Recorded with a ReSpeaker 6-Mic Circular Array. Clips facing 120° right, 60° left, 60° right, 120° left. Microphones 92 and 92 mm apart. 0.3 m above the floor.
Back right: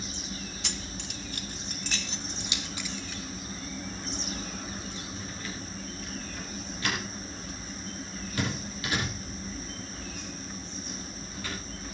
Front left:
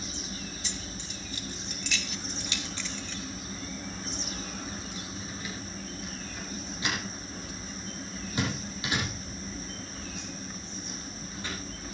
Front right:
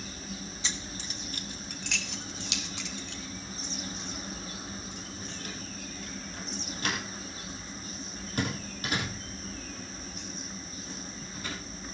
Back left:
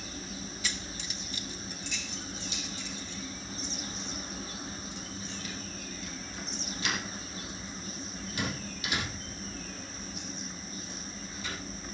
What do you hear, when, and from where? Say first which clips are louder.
0.6 s keys jangling: back right 1 dB, even; 125° right, 1.5 m; by 11.5 s 10° right, 10 m